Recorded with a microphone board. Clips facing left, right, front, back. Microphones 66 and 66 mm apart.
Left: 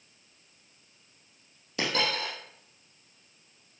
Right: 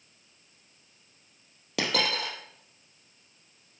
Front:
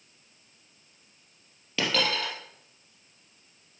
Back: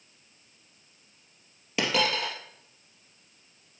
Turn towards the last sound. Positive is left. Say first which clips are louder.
# right 1 dB, back 1 dB
turn(degrees=-105)